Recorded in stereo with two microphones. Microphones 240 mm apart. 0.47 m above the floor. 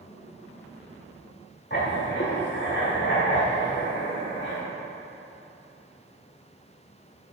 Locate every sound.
1.7 s writing: 50° left (ahead or behind), 1.4 m